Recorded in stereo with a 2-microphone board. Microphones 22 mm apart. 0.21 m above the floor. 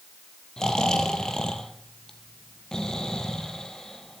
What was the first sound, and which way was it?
Snoring, 25° left (ahead or behind).